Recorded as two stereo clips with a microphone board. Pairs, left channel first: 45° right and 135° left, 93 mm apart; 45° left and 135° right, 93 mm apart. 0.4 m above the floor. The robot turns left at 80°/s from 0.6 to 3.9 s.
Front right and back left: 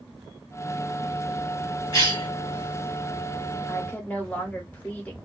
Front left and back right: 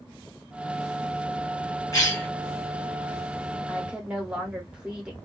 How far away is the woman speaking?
About 1.0 m.